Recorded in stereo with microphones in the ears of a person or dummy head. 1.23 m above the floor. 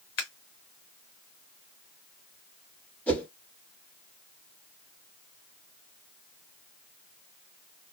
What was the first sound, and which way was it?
Scissors, 60° left (ahead or behind).